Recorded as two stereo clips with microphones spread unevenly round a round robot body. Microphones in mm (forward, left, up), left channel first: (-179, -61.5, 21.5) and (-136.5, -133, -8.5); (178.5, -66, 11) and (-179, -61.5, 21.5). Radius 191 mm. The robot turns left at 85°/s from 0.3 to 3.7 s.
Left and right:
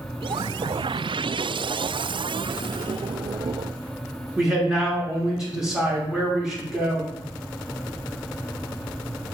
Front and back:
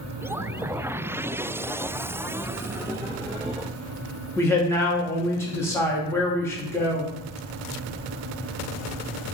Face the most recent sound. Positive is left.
turn(degrees=-75)